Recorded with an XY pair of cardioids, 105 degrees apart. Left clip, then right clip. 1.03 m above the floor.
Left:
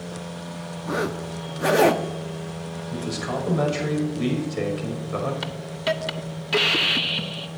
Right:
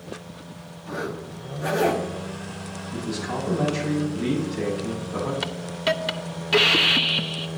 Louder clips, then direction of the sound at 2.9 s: Left 1 dB; 70° left.